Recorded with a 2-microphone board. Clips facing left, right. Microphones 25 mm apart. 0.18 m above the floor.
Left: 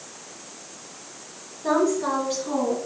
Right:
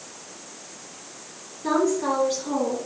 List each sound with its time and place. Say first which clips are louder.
1.6 s a woman speaking: even; 20° right (ahead or behind), 2.5 m; by 2.8 s 5° right (ahead or behind), 1.9 m